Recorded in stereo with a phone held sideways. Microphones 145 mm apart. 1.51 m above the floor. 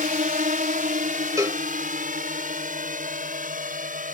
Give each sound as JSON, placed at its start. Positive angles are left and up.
{"t": 0.0, "sound": "a drone", "side_deg": -75}
{"t": 1.4, "sound": "a cowbell", "side_deg": -25}